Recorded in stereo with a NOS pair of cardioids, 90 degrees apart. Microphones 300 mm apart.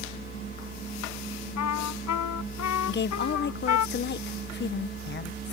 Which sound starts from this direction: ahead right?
A fan, at 0.0 s.